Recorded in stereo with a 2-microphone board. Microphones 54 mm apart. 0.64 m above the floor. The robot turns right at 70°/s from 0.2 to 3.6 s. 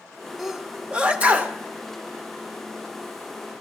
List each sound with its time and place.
0.4 s a sneeze: centre (ahead or behind), 1.0 m; by 1.5 s 30° right (ahead or behind), 1.0 m